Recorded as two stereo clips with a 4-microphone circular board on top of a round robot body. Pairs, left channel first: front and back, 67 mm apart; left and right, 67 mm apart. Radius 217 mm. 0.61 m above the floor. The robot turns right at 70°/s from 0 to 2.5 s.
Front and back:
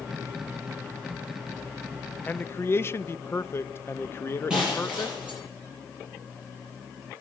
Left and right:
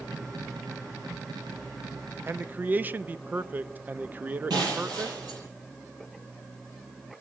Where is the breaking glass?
105° right, 7 m.